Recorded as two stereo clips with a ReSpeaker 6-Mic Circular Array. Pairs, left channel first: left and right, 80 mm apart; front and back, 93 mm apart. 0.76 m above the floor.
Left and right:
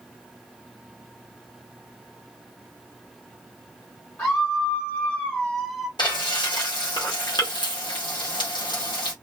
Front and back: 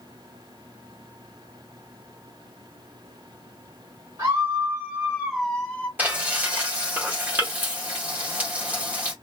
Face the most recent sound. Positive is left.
turn(degrees=110)